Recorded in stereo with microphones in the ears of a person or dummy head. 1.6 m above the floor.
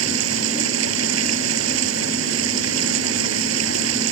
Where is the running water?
80° right.